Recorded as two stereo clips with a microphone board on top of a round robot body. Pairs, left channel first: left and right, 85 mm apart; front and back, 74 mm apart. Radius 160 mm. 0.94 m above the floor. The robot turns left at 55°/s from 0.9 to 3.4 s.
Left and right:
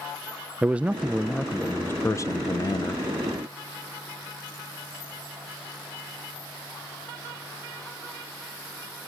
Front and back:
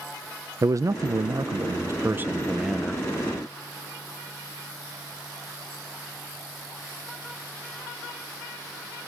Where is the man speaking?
160° right, 0.5 m; by 3.0 s 80° left, 0.5 m.